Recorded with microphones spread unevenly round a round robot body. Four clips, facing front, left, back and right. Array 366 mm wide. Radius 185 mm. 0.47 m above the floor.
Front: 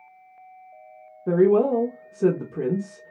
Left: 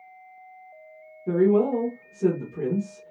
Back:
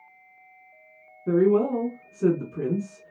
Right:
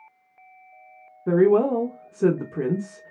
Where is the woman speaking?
80° right, 1.0 m.